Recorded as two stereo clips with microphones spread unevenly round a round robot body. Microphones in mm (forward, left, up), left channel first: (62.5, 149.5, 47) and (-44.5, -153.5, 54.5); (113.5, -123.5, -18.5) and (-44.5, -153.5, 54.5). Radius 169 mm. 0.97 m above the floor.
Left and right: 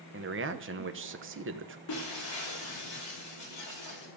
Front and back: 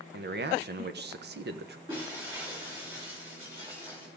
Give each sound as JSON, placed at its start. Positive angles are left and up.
{"t": 0.1, "sound": "a man speaking", "azimuth_deg": -145, "distance_m": 1.0}
{"t": 1.9, "sound": "breaking glass", "azimuth_deg": 115, "distance_m": 8.0}